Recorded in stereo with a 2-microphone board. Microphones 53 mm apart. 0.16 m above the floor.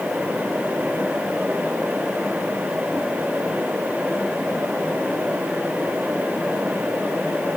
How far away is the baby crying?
I don't hear a baby crying.